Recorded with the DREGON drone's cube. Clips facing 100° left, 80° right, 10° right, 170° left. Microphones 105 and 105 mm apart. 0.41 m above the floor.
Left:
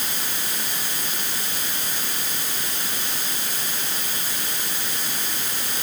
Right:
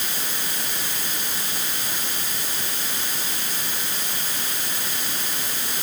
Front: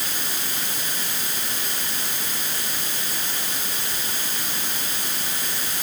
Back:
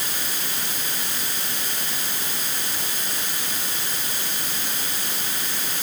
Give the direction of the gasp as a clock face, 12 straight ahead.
I don't hear a gasp.